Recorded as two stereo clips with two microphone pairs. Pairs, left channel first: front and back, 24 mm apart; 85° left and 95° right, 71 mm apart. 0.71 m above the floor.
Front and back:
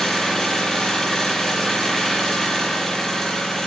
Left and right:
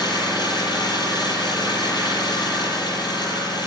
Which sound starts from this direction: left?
An engine running, at 0.0 s.